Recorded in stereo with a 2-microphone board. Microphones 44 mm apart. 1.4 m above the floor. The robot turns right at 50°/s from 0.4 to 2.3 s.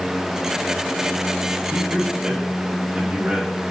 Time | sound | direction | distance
1.7 | a man speaking | 60° right (ahead or behind) | 1.3 m